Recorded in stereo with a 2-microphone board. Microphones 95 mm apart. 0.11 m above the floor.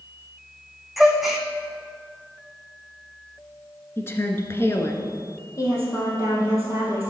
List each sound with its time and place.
1.0 s a gasp: centre (ahead or behind), 1.3 m
4.0 s a woman speaking: 25° left (ahead or behind), 1.3 m
5.6 s a woman speaking: 35° left (ahead or behind), 4 m